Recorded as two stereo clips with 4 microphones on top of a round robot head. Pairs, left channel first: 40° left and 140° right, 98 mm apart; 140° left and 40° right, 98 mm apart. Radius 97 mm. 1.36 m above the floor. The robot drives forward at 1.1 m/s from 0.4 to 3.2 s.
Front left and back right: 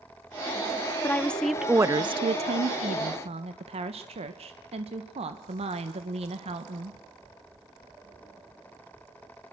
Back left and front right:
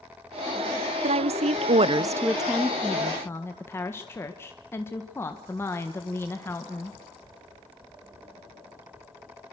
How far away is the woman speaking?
About 1.2 m.